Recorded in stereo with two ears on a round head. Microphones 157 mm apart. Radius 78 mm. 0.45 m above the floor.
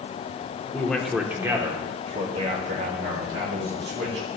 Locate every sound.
0.7 s a man speaking: 10° left (ahead or behind), 0.9 m; by 4.3 s 65° right (ahead or behind), 1.8 m